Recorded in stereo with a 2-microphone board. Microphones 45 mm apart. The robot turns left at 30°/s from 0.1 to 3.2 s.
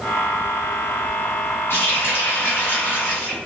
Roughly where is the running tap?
Left.